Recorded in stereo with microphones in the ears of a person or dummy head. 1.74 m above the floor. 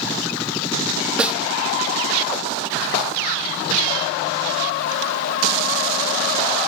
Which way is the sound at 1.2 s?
10° right (ahead or behind).